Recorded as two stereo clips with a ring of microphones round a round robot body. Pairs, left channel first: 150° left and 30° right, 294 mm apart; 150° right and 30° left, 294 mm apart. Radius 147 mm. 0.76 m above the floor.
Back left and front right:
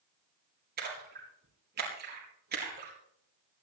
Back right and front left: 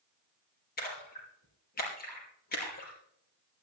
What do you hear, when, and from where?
0.8 s a splash: 90° right, 4.5 m